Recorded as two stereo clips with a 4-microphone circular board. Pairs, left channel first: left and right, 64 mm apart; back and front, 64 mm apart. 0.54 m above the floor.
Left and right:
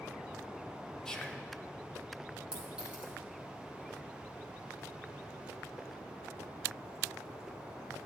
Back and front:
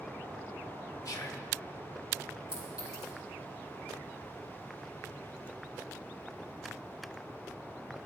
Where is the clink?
165° right, 5 m.